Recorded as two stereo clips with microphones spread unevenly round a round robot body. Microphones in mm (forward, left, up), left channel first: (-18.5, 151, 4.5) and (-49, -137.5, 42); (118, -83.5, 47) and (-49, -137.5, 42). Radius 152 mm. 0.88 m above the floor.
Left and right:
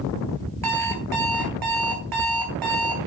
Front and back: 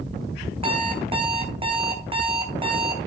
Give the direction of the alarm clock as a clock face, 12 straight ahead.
3 o'clock.